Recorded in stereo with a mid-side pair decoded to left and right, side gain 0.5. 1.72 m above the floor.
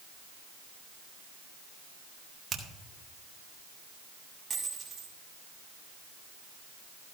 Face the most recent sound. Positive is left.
turn(degrees=-30)